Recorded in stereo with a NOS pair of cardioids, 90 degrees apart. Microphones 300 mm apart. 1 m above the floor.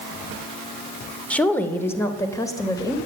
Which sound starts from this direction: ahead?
A woman speaking, at 1.3 s.